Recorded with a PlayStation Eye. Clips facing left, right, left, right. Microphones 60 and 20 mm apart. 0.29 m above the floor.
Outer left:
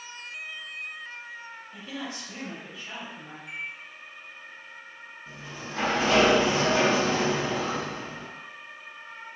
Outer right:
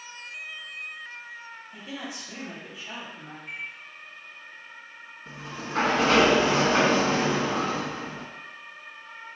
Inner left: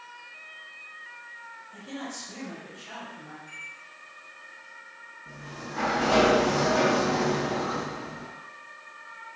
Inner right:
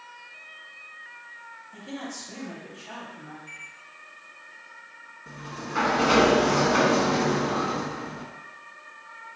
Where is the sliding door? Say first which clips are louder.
Outer right 4 dB, inner right 4 dB; 60° right (ahead or behind), 0.6 m.